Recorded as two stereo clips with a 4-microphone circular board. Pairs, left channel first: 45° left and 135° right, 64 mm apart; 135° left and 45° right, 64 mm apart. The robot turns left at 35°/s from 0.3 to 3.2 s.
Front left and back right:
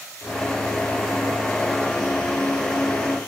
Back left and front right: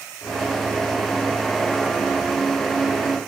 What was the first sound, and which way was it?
Only background noise.